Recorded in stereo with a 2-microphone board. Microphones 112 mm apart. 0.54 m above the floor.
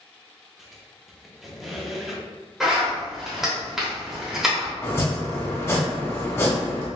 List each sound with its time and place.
0.6 s a squeak: centre (ahead or behind), 0.7 m
2.6 s a zipper: 5° right (ahead or behind), 1.4 m
4.8 s chopping: 25° left (ahead or behind), 0.8 m